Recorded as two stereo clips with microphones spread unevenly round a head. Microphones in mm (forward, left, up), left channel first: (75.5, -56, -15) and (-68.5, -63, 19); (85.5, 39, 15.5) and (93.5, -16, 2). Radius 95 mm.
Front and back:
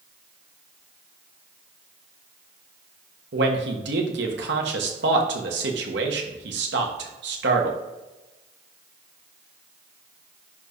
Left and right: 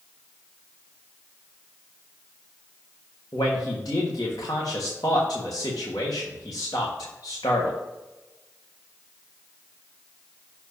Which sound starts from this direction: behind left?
A man speaking, at 3.3 s.